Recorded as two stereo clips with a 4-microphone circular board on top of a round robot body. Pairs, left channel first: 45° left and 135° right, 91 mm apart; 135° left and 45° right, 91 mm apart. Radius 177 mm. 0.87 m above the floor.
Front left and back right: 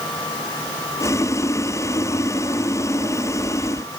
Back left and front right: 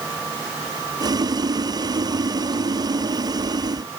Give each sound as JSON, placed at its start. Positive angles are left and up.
{"t": 1.0, "sound": "boiling", "azimuth_deg": -10}